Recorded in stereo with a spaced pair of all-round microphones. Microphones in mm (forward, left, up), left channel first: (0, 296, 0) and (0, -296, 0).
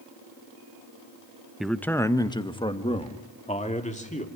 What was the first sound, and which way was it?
A man speaking, centre (ahead or behind).